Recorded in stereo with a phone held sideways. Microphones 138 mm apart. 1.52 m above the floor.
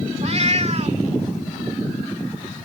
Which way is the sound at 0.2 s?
50° right (ahead or behind).